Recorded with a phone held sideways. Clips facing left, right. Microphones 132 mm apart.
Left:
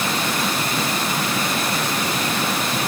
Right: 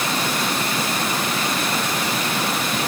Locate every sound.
Only background noise.